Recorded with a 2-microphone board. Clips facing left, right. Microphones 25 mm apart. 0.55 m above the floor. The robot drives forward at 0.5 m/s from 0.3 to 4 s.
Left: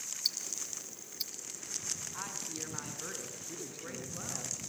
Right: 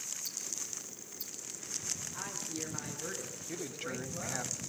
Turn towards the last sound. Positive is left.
turn(degrees=-45)  # may be behind; listen again after turning